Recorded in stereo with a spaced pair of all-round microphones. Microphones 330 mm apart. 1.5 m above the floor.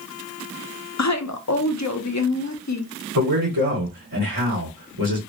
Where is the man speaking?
80° right, 1.4 m.